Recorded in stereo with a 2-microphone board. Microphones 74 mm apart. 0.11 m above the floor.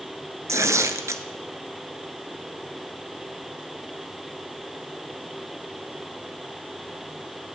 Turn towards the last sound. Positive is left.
turn(degrees=-40)  # may be behind; listen again after turning